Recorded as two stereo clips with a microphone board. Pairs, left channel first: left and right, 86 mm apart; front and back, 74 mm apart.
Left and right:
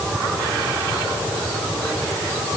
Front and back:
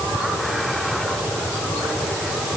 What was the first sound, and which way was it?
Only background noise.